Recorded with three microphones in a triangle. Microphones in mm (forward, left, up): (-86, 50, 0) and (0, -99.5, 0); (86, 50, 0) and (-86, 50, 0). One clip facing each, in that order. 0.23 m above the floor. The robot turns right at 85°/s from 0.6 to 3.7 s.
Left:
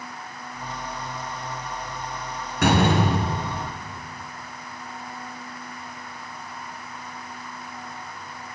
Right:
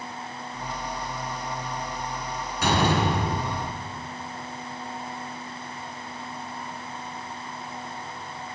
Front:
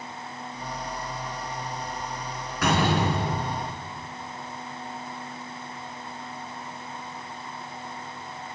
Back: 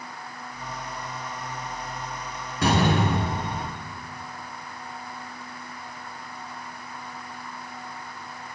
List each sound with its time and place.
2.6 s a door slam: 120° left, 2.5 m; by 3.8 s 145° right, 2.5 m